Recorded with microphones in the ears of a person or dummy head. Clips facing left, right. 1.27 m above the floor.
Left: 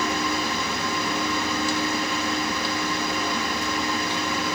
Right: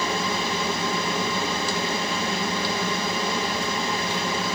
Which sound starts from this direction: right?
A fan, at 0.0 s.